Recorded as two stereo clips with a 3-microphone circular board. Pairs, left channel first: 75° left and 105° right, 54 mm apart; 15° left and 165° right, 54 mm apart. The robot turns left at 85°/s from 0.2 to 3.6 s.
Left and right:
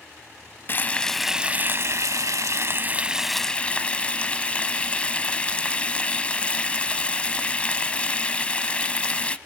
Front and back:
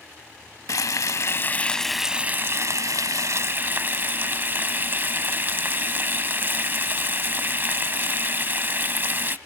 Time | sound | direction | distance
0.7 | frying | 30° left | 0.6 m